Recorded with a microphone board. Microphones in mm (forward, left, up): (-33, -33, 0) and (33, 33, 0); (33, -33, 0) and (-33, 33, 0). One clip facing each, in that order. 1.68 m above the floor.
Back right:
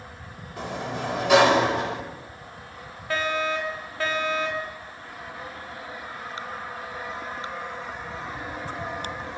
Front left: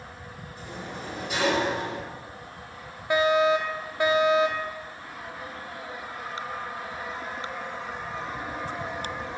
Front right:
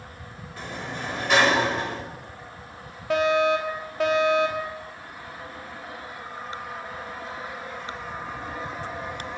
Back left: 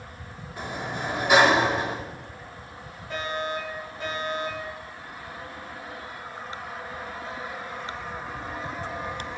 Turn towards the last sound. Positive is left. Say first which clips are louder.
# front left 6 dB, front right 10 dB
turn(degrees=-30)